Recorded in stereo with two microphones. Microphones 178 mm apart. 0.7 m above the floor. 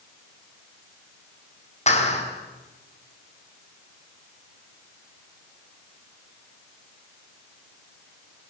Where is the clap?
40° left (ahead or behind), 5.5 m.